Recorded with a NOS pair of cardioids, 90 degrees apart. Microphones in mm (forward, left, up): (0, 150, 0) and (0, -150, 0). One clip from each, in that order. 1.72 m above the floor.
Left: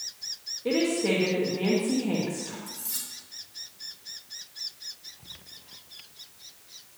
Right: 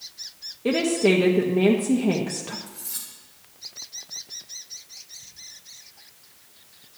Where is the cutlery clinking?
5° left, 2.5 m.